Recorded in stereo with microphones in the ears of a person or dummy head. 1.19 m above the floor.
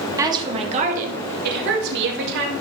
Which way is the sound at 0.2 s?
15° right (ahead or behind).